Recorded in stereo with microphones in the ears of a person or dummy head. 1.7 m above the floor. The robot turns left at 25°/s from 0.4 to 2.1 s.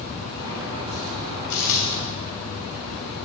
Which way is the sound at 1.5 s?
65° left (ahead or behind).